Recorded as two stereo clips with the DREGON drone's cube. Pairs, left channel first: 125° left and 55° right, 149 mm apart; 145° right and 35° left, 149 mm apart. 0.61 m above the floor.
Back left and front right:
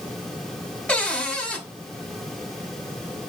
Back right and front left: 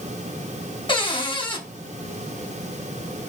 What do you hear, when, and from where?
0.9 s a cupboard door: 160° right, 0.7 m